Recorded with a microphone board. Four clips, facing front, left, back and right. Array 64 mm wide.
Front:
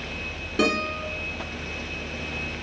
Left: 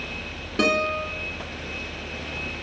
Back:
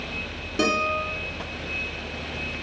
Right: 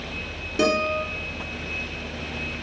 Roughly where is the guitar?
Left.